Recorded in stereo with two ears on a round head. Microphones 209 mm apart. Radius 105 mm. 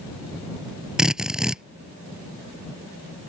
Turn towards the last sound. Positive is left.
turn(degrees=-5)  # may be behind; listen again after turning